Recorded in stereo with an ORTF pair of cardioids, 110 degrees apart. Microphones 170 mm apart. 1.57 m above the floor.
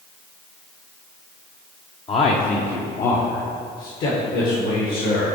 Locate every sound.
2.1 s a man speaking: 30° left, 0.6 m; by 5.4 s 70° left, 2.5 m